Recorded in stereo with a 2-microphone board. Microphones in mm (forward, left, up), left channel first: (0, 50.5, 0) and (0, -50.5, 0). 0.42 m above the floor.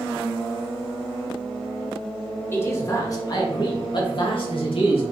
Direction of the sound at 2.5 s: 25° left (ahead or behind).